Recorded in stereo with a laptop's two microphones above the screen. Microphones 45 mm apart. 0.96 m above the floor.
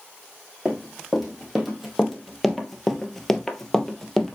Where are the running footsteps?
Centre (ahead or behind), 2.5 m; by 4.4 s 5° left (ahead or behind), 1.4 m.